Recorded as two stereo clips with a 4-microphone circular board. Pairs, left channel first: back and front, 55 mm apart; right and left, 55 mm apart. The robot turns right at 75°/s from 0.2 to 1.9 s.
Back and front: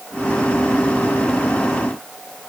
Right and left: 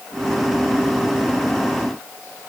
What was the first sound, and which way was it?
Only background noise.